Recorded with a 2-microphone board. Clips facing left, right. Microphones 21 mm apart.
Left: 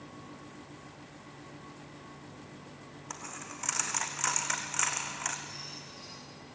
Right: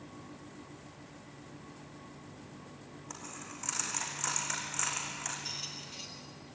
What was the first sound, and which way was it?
A dropped coin, 25° left (ahead or behind).